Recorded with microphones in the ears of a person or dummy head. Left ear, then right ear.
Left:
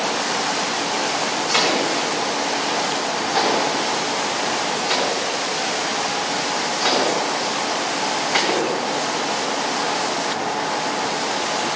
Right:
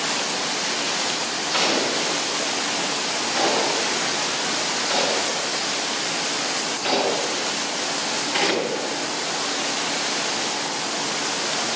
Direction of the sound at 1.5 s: 45° left (ahead or behind).